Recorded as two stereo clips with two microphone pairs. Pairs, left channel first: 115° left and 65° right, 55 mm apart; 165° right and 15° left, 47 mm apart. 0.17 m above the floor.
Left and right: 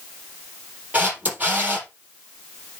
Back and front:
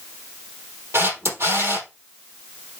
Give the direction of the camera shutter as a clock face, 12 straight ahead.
12 o'clock.